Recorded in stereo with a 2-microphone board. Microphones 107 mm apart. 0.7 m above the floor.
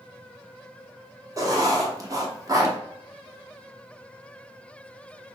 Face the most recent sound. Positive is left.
turn(degrees=-30)  # may be behind; listen again after turning